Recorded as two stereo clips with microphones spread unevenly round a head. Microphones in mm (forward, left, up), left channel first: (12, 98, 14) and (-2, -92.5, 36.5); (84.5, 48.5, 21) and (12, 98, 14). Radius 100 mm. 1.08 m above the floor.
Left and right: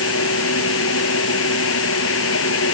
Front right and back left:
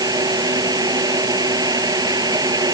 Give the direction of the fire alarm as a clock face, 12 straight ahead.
I don't hear a fire alarm.